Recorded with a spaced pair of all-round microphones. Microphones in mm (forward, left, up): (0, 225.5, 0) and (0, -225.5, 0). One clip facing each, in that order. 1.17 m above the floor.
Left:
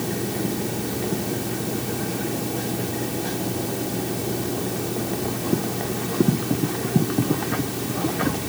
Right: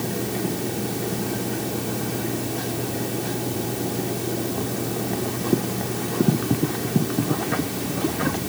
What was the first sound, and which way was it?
Only background noise.